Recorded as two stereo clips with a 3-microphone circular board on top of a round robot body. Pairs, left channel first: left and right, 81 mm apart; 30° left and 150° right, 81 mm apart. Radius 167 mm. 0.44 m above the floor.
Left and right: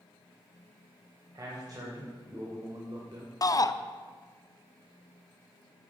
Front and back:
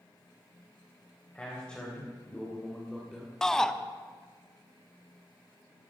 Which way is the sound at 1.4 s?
50° right.